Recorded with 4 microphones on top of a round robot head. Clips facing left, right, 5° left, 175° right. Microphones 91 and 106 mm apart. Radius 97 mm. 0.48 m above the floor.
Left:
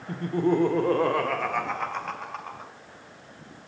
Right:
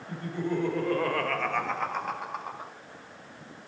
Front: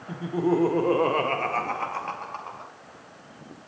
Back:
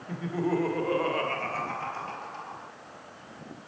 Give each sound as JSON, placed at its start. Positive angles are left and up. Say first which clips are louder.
{"t": 0.1, "sound": "laughter", "louder": "left 7 dB, front 4 dB", "azimuth_deg": 80, "distance_m": 1.8}